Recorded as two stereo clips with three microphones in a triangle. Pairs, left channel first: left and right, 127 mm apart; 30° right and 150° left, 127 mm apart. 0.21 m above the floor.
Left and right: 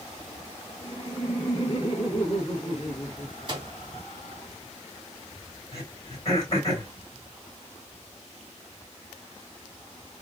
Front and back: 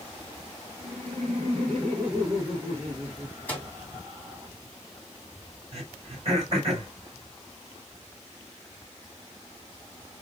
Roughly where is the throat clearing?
Behind left.